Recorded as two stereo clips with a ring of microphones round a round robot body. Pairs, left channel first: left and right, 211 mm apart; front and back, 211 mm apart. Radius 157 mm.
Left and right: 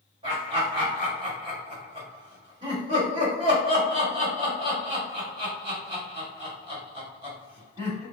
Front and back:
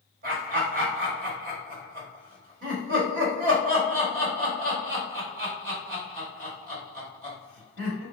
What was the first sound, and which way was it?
Laughter, 150° right.